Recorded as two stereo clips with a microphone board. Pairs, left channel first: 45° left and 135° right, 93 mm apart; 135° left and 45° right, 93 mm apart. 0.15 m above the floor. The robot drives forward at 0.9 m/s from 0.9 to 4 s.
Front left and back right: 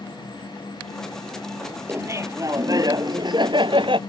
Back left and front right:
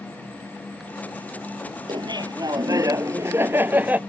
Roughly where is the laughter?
Right.